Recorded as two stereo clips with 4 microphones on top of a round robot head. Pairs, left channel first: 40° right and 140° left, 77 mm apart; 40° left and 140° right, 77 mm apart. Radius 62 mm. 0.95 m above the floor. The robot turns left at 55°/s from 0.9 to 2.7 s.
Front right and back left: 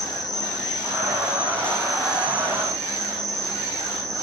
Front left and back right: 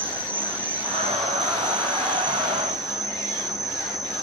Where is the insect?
75° right, 3.5 m; by 4.2 s 175° right, 3.5 m.